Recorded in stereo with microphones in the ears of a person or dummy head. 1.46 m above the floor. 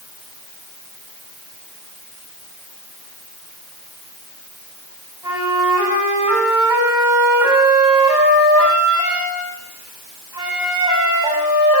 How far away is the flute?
About 6.5 m.